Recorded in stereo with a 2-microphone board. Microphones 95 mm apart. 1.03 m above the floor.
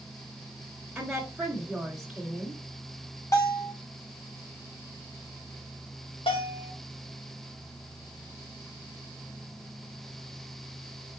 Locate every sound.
0.9 s a woman speaking: 5° right (ahead or behind), 2.5 m
3.3 s a bell: 35° left (ahead or behind), 4 m
6.3 s a bell: 80° left, 3 m